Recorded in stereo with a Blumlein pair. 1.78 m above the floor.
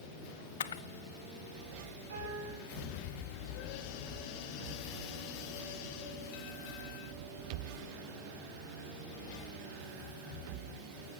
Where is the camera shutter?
65° left, 0.8 m.